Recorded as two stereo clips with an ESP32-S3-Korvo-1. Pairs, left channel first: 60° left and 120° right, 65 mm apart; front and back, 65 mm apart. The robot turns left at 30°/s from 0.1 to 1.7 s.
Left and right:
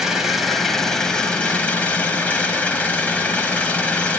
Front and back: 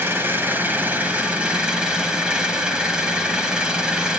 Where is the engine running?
165° left, 1.4 m; by 4.2 s 115° left, 1.4 m.